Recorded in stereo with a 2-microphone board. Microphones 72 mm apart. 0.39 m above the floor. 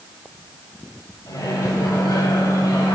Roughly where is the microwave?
Left.